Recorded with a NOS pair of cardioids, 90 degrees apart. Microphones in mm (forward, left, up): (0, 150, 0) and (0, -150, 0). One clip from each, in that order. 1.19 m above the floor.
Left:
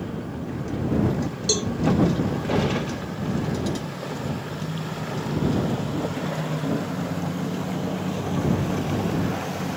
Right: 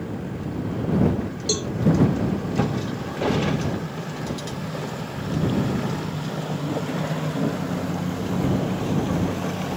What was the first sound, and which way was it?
A cowbell, 20° left.